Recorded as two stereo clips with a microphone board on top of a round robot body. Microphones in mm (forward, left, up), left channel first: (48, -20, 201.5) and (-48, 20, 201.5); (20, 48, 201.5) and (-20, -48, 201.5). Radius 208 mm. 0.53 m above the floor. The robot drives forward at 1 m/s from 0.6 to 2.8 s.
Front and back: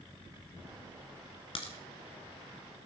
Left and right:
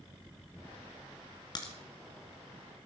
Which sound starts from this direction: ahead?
A crack, at 1.6 s.